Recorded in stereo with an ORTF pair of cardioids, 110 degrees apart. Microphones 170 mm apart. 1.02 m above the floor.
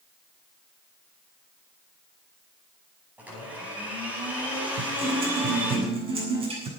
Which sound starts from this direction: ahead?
A blender, at 3.2 s.